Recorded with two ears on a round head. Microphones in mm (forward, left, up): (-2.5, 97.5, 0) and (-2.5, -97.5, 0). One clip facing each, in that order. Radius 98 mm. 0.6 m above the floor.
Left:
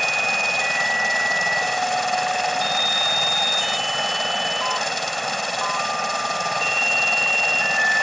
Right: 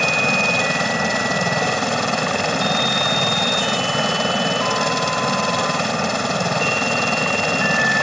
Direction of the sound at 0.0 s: 60° right (ahead or behind).